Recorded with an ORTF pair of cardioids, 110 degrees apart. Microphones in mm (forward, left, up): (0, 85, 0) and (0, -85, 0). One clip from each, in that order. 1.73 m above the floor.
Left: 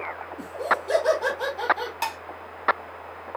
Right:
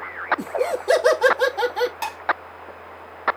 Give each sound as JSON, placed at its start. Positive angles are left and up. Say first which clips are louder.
{"t": 0.4, "sound": "laughter", "louder": "right 2 dB", "azimuth_deg": -50, "distance_m": 3.0}
{"t": 2.0, "sound": "dishes clattering", "louder": "even", "azimuth_deg": 5, "distance_m": 3.0}